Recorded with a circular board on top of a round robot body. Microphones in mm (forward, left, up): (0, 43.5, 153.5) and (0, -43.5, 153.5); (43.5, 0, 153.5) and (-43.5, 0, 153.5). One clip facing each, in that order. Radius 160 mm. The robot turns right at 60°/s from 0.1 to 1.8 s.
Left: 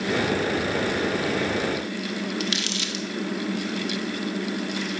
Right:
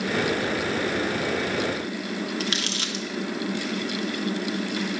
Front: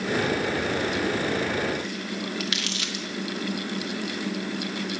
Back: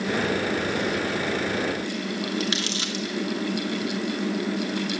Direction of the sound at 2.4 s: 125° right.